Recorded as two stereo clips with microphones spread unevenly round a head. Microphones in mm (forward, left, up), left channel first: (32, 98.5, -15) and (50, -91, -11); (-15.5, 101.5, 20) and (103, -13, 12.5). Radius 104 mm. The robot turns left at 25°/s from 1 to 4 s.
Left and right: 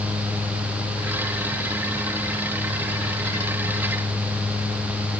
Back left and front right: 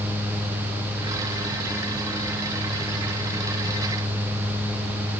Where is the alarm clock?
No alarm clock in this recording.